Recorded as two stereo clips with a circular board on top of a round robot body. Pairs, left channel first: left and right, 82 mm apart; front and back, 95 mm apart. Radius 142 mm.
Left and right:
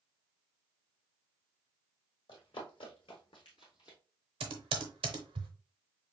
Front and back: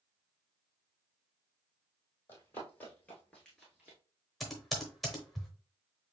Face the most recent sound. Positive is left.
turn(degrees=-90)